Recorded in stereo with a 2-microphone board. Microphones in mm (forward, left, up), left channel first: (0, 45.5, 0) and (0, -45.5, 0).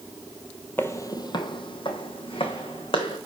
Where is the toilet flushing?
No toilet flushing in this recording.